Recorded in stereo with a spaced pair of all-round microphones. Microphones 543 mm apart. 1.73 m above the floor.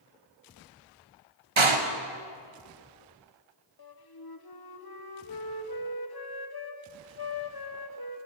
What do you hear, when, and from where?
1.6 s a door slam: 65° right (ahead or behind), 1.1 m
3.8 s a flute: 45° left (ahead or behind), 0.8 m